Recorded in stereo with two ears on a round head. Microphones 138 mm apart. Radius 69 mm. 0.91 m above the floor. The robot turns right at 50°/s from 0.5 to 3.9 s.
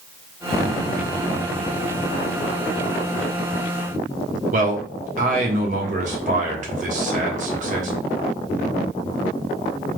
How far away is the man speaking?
About 1.4 m.